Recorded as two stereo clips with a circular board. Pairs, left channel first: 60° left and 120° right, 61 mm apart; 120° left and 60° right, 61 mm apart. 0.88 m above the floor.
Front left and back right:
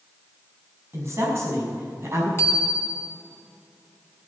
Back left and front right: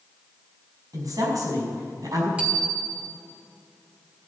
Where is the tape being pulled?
No tape being pulled in this recording.